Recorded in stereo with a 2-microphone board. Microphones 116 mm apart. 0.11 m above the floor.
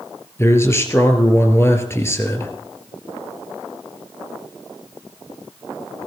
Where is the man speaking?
25° left (ahead or behind), 2.5 m.